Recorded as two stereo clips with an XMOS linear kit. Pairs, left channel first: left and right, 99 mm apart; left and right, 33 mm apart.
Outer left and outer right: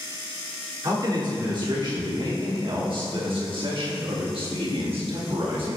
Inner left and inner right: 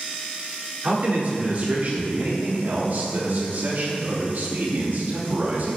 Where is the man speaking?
45° right (ahead or behind), 3.5 m; by 5.8 s 65° right (ahead or behind), 2 m.